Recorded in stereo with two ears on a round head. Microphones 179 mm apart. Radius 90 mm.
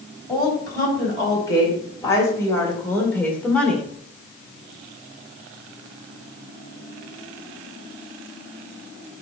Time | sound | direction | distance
0.3 | a woman speaking | 20° left (ahead or behind) | 4 m